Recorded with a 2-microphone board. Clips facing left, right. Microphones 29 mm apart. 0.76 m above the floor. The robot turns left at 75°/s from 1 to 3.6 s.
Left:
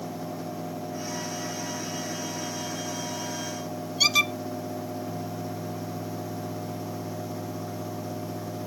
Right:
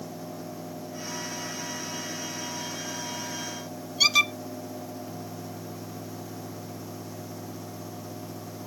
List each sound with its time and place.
4.0 s a squeak: 5° right (ahead or behind)